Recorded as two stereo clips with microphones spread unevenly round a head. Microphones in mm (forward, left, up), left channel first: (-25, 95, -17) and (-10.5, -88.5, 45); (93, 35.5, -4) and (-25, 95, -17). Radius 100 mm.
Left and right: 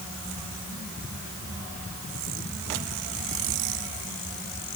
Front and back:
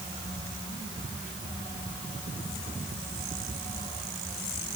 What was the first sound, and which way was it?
Only background noise.